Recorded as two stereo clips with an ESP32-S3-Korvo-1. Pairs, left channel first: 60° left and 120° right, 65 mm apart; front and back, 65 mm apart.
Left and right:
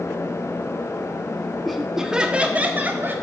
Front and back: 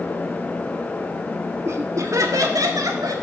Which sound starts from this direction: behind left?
Laughter, at 1.6 s.